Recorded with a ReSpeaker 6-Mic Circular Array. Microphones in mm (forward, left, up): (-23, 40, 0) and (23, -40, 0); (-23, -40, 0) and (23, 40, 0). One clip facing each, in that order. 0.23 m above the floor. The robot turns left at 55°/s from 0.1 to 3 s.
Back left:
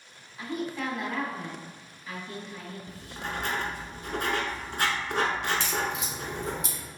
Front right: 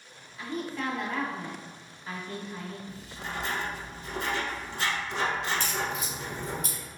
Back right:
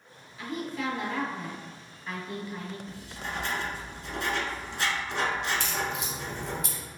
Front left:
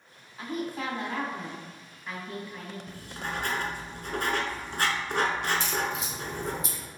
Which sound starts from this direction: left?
Writing, at 2.9 s.